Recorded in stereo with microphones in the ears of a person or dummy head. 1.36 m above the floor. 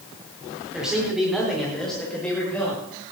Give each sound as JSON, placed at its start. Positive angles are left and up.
{"t": 0.7, "sound": "a man speaking", "side_deg": -5, "distance_m": 4.0}